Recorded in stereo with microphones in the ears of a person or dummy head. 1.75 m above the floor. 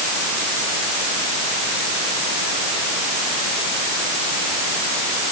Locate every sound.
Only background noise.